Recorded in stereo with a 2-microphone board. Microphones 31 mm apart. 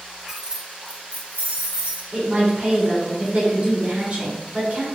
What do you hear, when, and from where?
0.3 s keys jangling: 10° right (ahead or behind), 0.6 m; by 2.0 s 65° right (ahead or behind), 1.1 m
2.1 s a woman speaking: 45° right (ahead or behind), 1.8 m